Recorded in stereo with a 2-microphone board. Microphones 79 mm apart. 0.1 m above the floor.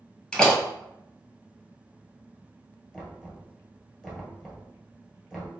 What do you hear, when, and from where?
0.3 s a door slam: 5° left (ahead or behind), 1.6 m
2.9 s knocking: centre (ahead or behind), 1.5 m